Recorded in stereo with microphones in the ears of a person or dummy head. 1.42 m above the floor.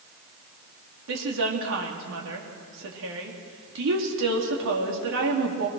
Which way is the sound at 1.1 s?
65° right (ahead or behind).